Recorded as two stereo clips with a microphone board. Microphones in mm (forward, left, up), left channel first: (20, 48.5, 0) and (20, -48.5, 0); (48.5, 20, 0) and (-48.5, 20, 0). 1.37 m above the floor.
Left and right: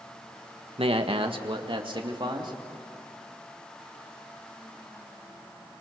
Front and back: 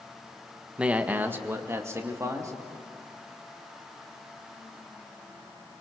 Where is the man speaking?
100° right, 1.4 m; by 2.5 s 125° right, 3 m.